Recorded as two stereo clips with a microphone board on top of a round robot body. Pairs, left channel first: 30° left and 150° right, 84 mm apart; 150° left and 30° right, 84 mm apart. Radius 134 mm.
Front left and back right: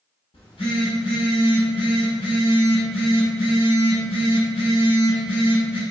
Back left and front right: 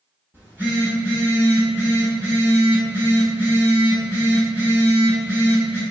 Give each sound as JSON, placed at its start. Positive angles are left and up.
{"t": 0.3, "sound": "a phone buzzing", "azimuth_deg": 40, "distance_m": 1.3}